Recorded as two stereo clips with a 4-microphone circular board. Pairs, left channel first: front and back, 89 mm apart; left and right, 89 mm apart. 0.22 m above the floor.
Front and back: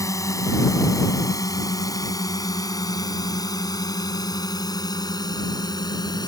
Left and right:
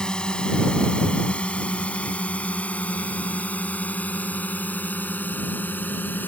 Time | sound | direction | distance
0.0 | a drone | 15° left | ?